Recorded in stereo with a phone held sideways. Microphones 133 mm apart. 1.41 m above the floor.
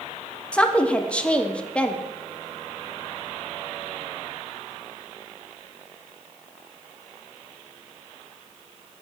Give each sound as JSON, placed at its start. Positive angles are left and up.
{"t": 0.5, "sound": "a woman speaking", "side_deg": 10, "distance_m": 1.0}